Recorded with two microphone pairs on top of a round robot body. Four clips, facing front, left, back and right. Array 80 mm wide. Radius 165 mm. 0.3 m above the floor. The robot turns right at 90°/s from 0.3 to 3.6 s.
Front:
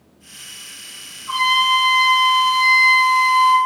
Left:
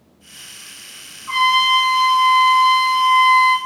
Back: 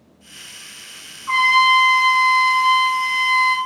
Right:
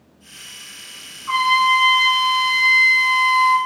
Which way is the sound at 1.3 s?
165° right.